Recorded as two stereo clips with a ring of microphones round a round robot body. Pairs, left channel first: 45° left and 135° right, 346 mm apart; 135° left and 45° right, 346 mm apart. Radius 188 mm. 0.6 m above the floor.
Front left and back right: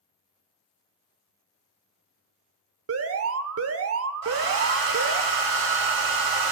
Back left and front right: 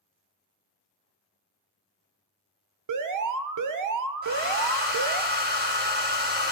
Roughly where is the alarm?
Right.